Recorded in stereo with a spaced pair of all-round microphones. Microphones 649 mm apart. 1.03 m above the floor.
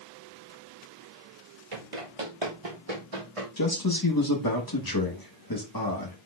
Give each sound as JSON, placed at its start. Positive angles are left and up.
{"t": 1.7, "sound": "running footsteps", "side_deg": -50, "distance_m": 1.5}
{"t": 3.6, "sound": "a man speaking", "side_deg": 35, "distance_m": 1.2}